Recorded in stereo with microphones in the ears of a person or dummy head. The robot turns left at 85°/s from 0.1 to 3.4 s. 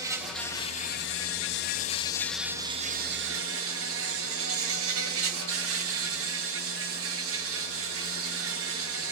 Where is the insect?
165° right, 1.1 m; by 9.1 s 85° right, 1.1 m.